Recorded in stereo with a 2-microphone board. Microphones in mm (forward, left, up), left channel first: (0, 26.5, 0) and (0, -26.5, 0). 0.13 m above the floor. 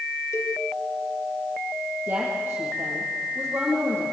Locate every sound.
0.3 s a cowbell: 60° left (ahead or behind), 3.5 m
2.1 s a woman speaking: 30° right (ahead or behind), 5 m